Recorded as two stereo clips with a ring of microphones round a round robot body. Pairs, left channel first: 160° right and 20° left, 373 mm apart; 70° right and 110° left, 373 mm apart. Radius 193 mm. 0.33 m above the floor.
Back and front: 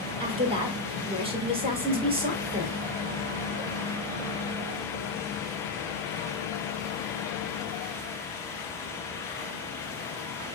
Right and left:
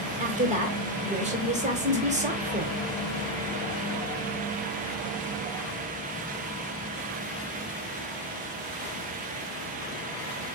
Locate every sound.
0.2 s a woman speaking: 75° left, 1.1 m